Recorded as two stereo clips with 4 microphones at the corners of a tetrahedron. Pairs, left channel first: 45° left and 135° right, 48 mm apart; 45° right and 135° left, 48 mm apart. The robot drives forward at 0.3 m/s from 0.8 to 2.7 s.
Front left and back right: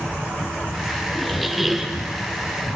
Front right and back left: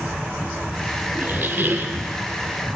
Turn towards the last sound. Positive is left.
turn(degrees=155)